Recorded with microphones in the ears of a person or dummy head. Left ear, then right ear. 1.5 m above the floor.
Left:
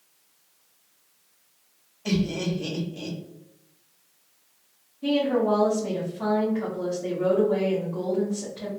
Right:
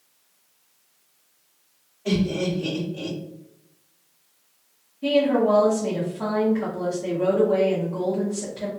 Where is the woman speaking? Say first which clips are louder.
Right 4 dB; 10° right (ahead or behind), 1.0 m.